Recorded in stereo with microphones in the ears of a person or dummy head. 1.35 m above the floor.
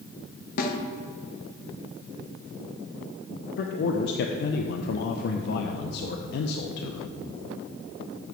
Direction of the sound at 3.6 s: 60° left (ahead or behind).